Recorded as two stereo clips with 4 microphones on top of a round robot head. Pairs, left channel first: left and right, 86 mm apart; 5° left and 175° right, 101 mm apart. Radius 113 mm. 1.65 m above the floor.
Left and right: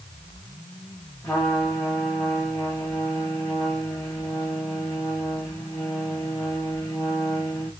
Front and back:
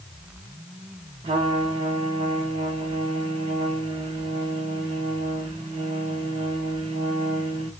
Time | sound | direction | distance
1.2 | a trumpet | 165° left | 1.2 m